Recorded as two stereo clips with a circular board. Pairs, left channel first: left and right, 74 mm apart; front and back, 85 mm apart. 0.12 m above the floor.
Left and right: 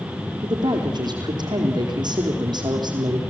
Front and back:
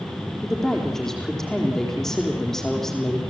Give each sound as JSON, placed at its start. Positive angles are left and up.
{"t": 0.4, "sound": "a woman speaking", "azimuth_deg": -85, "distance_m": 4.5}